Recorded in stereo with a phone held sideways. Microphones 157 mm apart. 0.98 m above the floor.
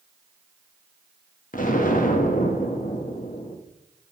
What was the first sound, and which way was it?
An explosion, 60° left (ahead or behind).